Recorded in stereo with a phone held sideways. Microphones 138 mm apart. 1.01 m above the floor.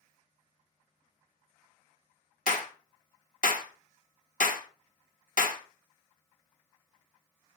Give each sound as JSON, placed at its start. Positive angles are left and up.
{"t": 2.5, "sound": "a clap", "side_deg": 75, "distance_m": 1.5}